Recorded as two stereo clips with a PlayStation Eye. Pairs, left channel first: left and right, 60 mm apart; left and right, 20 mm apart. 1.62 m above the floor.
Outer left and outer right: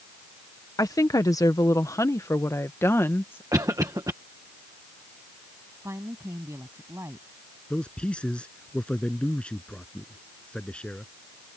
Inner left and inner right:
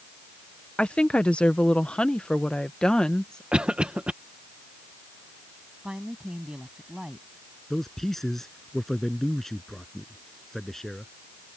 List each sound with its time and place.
0.8 s a woman speaking: 85° left; by 3.4 s 35° left (ahead or behind)
3.5 s a cough: 75° right (ahead or behind)
5.8 s a woman speaking: 50° right (ahead or behind)
7.7 s a man speaking: 20° left (ahead or behind)